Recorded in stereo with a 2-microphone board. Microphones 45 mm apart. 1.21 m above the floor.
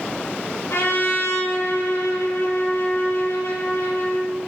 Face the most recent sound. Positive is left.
turn(degrees=85)